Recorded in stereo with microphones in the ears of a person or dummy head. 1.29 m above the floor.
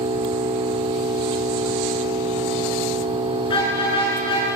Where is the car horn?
25° left (ahead or behind), 8.5 m.